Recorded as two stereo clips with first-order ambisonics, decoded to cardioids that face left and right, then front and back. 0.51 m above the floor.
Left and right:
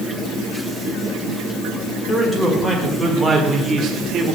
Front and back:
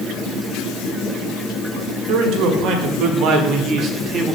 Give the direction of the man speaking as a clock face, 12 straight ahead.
6 o'clock.